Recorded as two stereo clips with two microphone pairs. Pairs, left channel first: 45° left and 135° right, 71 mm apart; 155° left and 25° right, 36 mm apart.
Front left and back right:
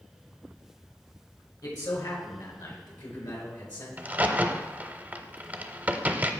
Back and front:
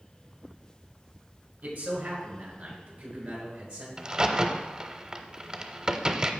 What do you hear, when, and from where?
1.6 s a man speaking: 20° left, 4 m; by 3.9 s 35° left, 5 m
4.0 s a crack: 85° right, 0.7 m